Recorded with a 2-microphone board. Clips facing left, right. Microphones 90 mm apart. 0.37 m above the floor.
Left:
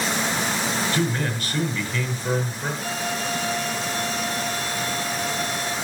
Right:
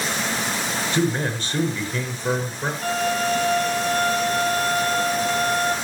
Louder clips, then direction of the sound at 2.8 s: Right 9 dB; 55° right (ahead or behind).